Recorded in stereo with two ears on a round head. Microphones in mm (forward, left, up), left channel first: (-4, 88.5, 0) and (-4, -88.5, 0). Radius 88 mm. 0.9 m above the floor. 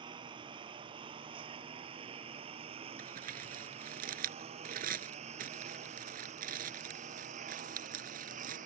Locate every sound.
0.0 s a lawn mower: 25° right (ahead or behind); by 8.7 s 40° right (ahead or behind)
3.0 s crumpling: 45° right (ahead or behind)